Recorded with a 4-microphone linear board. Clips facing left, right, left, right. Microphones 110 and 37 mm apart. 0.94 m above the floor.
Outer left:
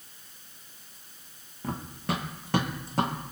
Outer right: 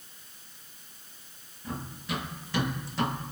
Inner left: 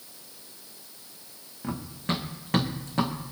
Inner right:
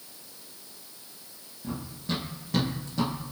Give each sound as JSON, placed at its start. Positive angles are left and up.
{"t": 1.6, "sound": "running footsteps", "side_deg": 60, "distance_m": 2.5}